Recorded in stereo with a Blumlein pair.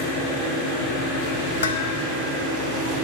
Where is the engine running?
50° left, 5.5 m.